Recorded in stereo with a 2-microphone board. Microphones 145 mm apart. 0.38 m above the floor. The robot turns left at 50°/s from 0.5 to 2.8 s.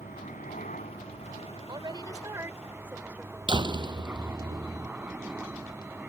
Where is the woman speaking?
105° right; by 3.4 s 160° right.